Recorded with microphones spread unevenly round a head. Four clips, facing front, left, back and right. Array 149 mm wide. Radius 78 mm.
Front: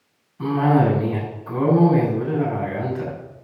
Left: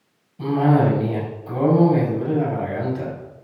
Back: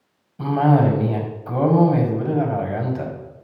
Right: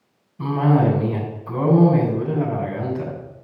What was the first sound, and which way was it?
A cough, straight behind.